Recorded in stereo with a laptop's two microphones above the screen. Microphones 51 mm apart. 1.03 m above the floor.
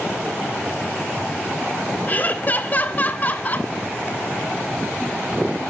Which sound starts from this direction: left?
Laughter, at 2.1 s.